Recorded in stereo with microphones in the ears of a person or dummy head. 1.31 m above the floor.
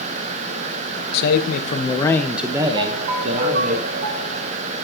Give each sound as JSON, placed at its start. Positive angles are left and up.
{"t": 1.1, "sound": "a man speaking", "side_deg": 60, "distance_m": 1.0}
{"t": 2.8, "sound": "a ringtone", "side_deg": -50, "distance_m": 3.0}